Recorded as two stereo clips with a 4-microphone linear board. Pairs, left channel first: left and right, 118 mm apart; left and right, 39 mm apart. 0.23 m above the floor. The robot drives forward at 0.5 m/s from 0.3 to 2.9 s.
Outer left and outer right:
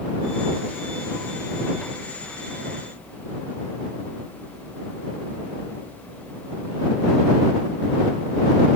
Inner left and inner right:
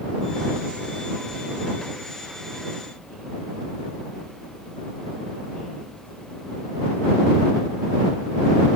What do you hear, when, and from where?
Only background noise.